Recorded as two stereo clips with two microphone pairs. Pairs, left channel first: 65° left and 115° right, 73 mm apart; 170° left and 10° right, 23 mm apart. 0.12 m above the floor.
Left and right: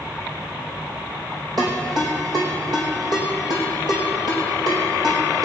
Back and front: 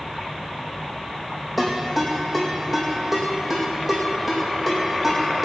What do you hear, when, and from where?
1.6 s a ringtone: 90° right, 4.5 m